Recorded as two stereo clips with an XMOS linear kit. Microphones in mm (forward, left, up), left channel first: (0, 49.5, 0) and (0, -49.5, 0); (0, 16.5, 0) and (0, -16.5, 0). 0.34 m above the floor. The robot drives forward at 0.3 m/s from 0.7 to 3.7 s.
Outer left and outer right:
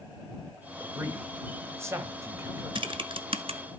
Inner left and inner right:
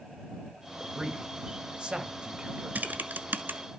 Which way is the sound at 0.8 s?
25° right (ahead or behind).